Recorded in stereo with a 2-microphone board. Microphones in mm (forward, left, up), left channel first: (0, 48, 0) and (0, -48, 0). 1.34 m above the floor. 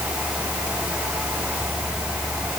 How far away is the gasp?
No gasp in this recording.